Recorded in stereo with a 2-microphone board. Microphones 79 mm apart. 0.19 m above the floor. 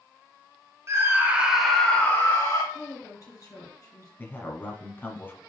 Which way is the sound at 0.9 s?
40° right (ahead or behind).